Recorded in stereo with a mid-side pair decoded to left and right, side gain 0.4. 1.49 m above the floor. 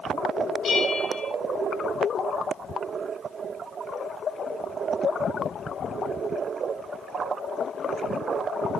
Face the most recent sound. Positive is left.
turn(degrees=60)